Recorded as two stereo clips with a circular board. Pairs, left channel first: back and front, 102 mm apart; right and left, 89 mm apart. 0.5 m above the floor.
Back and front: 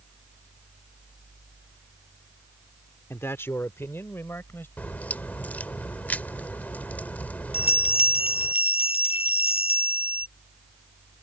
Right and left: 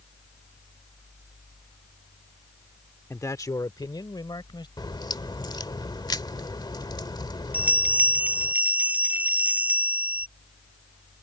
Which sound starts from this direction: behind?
A bell, at 7.5 s.